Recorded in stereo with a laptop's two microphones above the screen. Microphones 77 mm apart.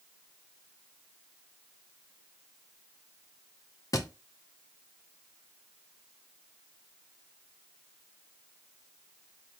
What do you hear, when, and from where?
3.9 s a thud: 50° left (ahead or behind), 0.5 m